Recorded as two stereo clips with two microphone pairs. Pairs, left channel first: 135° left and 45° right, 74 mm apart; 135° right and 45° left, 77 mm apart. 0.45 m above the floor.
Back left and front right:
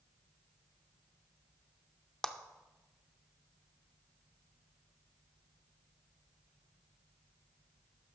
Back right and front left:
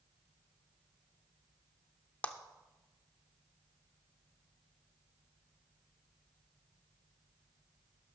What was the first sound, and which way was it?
A clap, 155° right.